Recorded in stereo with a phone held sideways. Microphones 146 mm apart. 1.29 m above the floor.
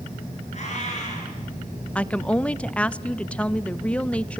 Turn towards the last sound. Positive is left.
turn(degrees=10)  # may be behind; listen again after turning